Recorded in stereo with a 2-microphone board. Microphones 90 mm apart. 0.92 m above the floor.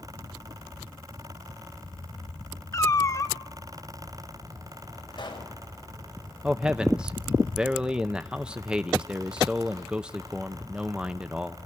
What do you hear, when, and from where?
2.7 s a cat meowing: 35° left (ahead or behind), 0.8 m
5.1 s a pop: 60° left (ahead or behind), 4.5 m
6.4 s a man speaking: 10° right (ahead or behind), 0.5 m